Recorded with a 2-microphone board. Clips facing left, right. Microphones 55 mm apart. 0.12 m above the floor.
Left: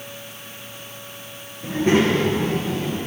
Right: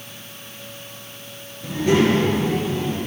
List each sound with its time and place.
1.6 s a child speaking: 25° left (ahead or behind), 1.6 m; by 3.0 s 55° left (ahead or behind), 1.8 m